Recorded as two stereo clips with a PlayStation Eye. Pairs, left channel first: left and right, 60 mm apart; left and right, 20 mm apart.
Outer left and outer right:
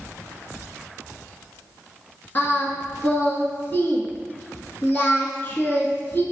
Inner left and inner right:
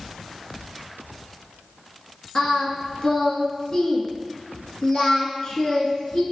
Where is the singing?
40° left (ahead or behind), 0.8 m.